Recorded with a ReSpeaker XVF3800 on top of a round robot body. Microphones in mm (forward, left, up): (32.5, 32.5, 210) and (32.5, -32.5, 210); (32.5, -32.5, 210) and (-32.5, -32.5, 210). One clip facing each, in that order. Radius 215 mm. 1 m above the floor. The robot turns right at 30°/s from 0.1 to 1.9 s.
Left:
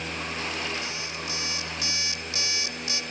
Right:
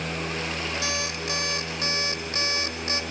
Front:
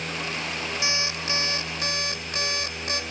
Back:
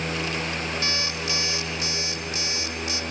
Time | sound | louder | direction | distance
0.8 | an alarm clock | right 5 dB, even | 75° right | 1.9 m